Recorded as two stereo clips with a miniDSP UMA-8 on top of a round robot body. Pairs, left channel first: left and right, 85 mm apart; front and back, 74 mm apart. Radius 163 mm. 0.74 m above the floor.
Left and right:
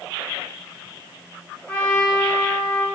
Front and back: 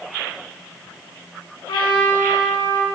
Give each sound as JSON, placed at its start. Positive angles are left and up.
{"t": 1.7, "sound": "a trumpet", "azimuth_deg": 10, "distance_m": 3.0}